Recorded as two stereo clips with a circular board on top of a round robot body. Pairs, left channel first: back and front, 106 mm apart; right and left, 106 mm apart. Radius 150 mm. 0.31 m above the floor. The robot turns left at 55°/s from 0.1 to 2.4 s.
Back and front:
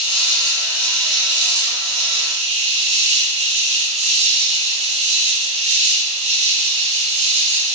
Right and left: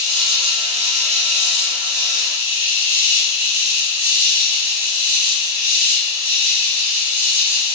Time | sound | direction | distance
0.0 | an insect | 145° left | 0.9 m